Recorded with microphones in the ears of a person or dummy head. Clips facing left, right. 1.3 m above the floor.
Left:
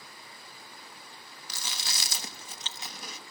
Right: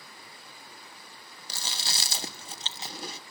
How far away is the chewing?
About 1.0 m.